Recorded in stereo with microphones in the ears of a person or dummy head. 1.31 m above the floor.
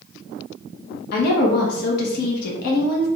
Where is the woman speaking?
60° left (ahead or behind), 1.1 m.